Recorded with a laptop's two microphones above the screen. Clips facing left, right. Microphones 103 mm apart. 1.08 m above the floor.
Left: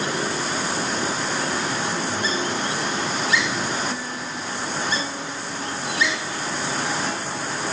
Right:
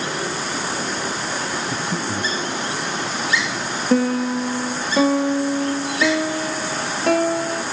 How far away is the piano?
About 0.6 m.